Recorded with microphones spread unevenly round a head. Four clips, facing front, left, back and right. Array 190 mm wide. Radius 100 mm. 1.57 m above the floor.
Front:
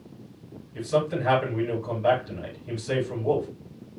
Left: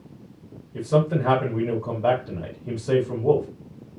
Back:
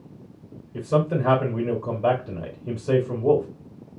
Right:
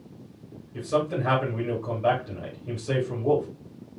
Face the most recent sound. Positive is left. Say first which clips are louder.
# left 4 dB, back 2 dB
turn(degrees=150)